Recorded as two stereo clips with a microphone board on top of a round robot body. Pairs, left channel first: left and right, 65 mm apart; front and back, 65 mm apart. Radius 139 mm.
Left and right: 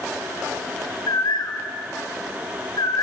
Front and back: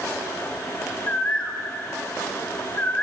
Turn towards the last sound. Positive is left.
turn(degrees=70)